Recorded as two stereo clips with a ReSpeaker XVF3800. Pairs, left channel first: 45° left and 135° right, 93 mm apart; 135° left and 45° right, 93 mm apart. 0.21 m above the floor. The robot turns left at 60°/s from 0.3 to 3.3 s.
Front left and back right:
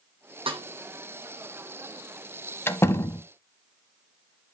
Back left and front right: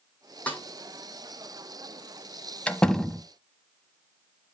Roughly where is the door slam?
Left.